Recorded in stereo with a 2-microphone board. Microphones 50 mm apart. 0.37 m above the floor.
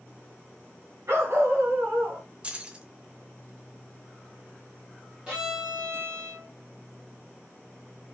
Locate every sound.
1.1 s a dog barking: 60° right (ahead or behind), 2 m
2.4 s keys jangling: 25° right (ahead or behind), 0.7 m
5.3 s a violin: 20° right (ahead or behind), 1.8 m